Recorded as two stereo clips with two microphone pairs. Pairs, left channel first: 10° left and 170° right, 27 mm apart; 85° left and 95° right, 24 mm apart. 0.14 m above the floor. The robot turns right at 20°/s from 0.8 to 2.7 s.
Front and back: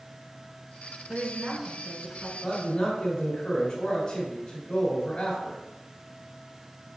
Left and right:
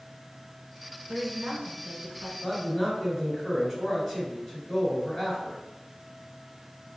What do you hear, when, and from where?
1.1 s a woman speaking: 140° right, 1.3 m; by 2.3 s 115° right, 1.3 m
2.4 s a man speaking: 10° left, 1.6 m; by 5.6 s 20° left, 1.6 m